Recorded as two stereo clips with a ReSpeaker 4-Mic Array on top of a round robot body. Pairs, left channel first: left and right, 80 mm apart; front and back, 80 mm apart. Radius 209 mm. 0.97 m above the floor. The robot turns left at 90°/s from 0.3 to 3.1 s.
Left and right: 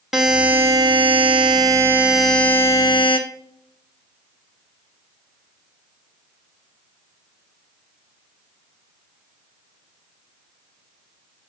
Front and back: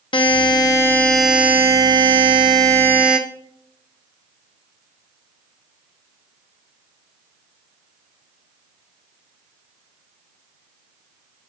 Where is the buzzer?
5° right, 1.0 m; by 3.2 s 105° left, 1.0 m.